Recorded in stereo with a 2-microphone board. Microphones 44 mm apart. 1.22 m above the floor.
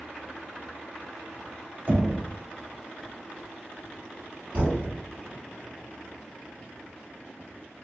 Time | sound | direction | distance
1.9 | knocking | 35° right (ahead or behind) | 0.7 m
4.5 | a thud | 30° right (ahead or behind) | 1.4 m